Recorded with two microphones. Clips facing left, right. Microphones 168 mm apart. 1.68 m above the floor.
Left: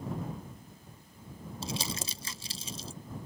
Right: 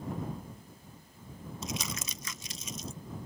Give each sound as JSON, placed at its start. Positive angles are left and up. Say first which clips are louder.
{"t": 1.6, "sound": "crumpling", "louder": "left 2 dB", "side_deg": 30}